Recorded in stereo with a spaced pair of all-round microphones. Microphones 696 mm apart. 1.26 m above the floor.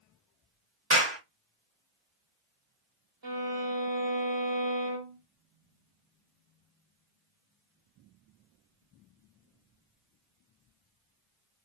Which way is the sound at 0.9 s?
40° right (ahead or behind).